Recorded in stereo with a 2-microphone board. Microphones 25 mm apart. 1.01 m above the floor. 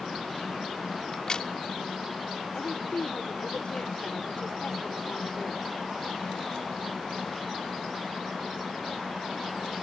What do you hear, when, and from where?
1.1 s a crack: 35° left (ahead or behind)
2.5 s a woman speaking: 50° left (ahead or behind)